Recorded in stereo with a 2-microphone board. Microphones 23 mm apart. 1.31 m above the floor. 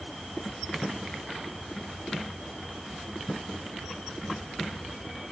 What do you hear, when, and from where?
Only background noise.